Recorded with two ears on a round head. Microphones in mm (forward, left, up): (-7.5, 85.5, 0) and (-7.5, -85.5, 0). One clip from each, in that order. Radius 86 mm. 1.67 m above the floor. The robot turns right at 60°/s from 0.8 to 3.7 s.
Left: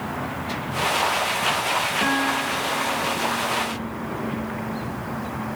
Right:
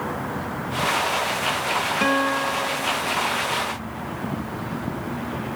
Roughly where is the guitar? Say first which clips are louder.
Right 1 dB; right.